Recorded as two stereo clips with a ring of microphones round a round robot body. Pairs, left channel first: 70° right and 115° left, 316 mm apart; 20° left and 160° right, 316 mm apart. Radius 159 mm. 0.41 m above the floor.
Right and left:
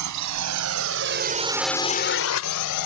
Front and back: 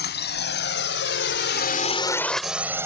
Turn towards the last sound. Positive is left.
turn(degrees=-75)